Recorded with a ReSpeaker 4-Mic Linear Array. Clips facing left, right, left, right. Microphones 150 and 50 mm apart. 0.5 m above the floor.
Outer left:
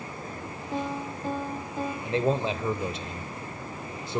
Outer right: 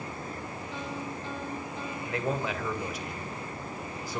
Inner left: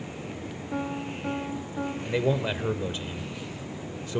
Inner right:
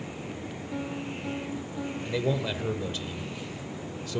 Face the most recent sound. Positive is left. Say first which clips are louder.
# outer left 5 dB, inner left 3 dB
turn(degrees=25)  # may be behind; listen again after turning